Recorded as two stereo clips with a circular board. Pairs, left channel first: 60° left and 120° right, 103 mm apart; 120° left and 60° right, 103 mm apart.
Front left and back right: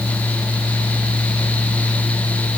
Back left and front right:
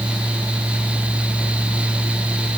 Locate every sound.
Only background noise.